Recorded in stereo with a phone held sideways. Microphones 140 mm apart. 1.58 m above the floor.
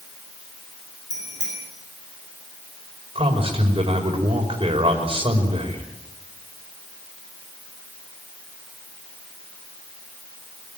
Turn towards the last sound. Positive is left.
turn(degrees=-45)  # may be behind; listen again after turning